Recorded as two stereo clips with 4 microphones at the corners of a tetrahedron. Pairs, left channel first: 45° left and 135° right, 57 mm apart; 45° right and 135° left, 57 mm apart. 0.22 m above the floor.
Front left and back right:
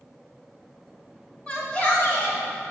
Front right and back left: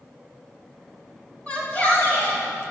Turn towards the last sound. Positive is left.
turn(degrees=0)